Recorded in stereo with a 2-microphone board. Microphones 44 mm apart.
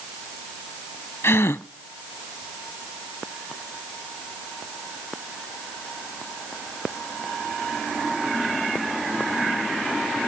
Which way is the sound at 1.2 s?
80° left.